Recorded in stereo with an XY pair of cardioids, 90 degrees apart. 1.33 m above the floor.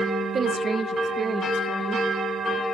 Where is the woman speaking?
50° right, 1.3 m; by 2.1 s 35° right, 2.5 m.